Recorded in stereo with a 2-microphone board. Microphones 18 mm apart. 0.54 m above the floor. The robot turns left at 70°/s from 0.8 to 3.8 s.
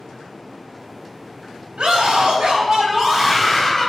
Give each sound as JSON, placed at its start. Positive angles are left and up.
{"t": 1.8, "sound": "a scream", "azimuth_deg": -60, "distance_m": 3.5}